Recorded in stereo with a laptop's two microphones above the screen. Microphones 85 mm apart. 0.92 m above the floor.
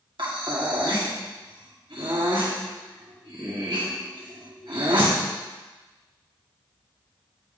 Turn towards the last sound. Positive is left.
turn(degrees=-75)  # may be behind; listen again after turning